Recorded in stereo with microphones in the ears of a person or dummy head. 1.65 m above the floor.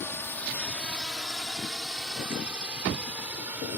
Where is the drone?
10° left (ahead or behind); by 3.8 s 10° right (ahead or behind).